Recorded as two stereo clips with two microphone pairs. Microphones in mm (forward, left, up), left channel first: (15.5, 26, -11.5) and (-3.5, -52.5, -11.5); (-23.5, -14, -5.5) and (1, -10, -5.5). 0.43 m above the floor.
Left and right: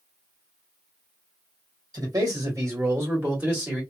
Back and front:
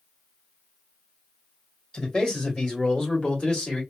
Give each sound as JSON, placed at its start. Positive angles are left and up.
{"t": 1.9, "sound": "a man speaking", "azimuth_deg": -130, "distance_m": 1.9}